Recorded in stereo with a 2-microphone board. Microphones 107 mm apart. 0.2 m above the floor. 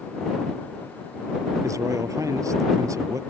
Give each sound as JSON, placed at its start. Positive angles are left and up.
{"t": 1.6, "sound": "a man speaking", "side_deg": -30}